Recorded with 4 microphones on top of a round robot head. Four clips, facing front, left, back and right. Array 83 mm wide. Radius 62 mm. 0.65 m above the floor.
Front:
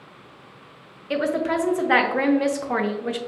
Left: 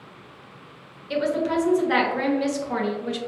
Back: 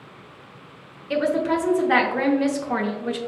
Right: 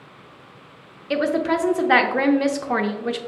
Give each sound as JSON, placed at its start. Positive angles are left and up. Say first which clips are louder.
{"t": 1.1, "sound": "a woman speaking", "louder": "right 2 dB, back 1 dB", "azimuth_deg": -70, "distance_m": 0.6}